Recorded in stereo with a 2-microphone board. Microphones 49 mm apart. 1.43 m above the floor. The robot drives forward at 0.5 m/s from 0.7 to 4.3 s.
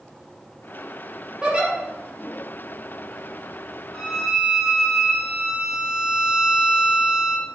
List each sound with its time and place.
1.4 s a giggle: 20° right (ahead or behind), 2.5 m
3.9 s a violin: 5° right (ahead or behind), 2.5 m